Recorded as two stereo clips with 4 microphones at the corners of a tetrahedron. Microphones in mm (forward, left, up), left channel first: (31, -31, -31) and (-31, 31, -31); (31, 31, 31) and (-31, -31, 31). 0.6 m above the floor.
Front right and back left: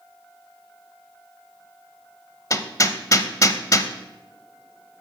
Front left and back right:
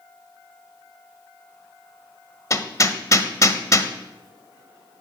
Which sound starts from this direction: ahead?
Hammering, at 2.5 s.